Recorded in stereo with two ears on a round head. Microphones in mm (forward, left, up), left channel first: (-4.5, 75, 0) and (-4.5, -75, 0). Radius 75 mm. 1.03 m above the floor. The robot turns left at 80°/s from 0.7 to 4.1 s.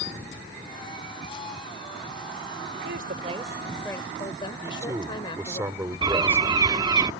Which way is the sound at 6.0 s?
25° right (ahead or behind).